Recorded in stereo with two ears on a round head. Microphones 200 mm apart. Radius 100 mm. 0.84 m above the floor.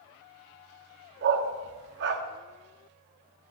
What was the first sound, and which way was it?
A dog barking, 50° right (ahead or behind).